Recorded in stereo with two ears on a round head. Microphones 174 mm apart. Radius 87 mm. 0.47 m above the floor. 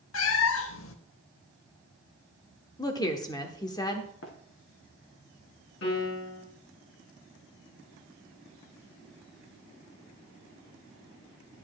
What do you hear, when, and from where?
0.1 s a cat meowing: 70° left (ahead or behind), 0.8 m
2.8 s a woman speaking: 20° left (ahead or behind), 0.9 m
4.2 s running footsteps: 65° left (ahead or behind), 2.5 m
5.8 s a piano: 60° left (ahead or behind), 5 m